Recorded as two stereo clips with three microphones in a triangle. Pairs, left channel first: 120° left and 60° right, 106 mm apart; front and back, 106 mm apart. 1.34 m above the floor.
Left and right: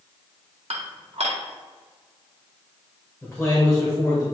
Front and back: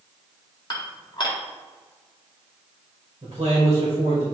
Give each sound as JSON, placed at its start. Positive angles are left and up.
{"t": 0.7, "sound": "dishes clattering", "azimuth_deg": -45, "distance_m": 1.6}
{"t": 3.2, "sound": "a man speaking", "azimuth_deg": -160, "distance_m": 2.0}